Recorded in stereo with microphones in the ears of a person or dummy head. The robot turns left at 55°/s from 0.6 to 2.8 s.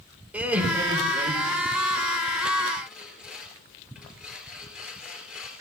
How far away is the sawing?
About 4.5 m.